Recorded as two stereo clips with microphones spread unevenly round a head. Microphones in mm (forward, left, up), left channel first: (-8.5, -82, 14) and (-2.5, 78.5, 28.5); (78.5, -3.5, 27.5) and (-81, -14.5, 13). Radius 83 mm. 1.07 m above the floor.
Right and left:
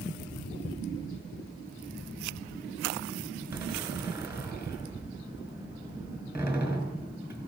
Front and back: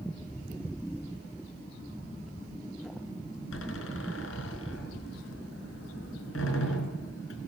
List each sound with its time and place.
3.5 s a door slam: 10° left, 5 m